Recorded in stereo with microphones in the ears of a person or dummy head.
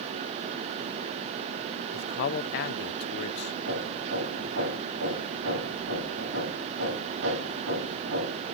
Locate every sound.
1.9 s a man speaking: 55° left (ahead or behind), 0.9 m
3.7 s hammering: 75° right (ahead or behind), 9.5 m